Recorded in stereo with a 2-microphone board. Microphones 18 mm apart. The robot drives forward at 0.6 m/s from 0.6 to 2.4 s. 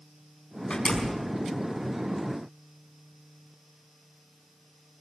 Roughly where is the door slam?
Left.